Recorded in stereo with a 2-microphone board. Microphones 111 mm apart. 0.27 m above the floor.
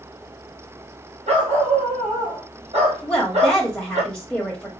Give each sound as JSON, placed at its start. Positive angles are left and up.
{"t": 1.3, "sound": "a dog barking", "side_deg": -80, "distance_m": 2.5}
{"t": 3.0, "sound": "a woman speaking", "side_deg": 10, "distance_m": 0.9}